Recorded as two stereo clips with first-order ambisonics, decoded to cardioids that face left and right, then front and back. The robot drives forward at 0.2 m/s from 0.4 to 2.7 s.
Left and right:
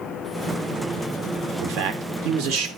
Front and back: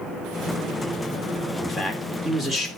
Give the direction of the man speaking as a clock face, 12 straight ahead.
3 o'clock.